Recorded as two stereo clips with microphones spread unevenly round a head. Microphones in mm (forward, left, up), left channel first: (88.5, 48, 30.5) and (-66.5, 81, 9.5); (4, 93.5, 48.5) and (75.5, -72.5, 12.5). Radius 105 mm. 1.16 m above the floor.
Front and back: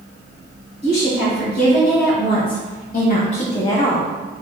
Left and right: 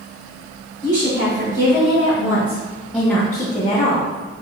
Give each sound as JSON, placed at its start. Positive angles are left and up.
{"t": 0.8, "sound": "a woman speaking", "azimuth_deg": -15, "distance_m": 1.8}